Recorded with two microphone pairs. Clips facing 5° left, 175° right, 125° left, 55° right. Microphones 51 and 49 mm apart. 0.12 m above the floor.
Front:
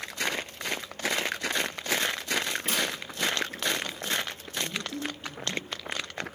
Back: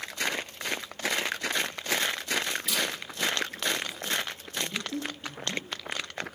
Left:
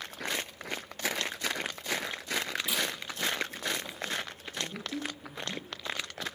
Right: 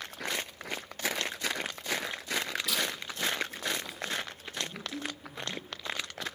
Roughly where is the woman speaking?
Behind left.